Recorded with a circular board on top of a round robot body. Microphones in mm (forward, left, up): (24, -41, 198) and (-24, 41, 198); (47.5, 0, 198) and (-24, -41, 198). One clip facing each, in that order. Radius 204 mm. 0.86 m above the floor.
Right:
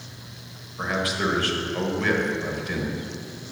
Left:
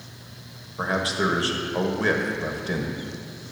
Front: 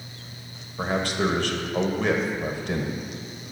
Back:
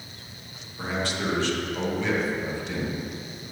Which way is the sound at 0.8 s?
65° left.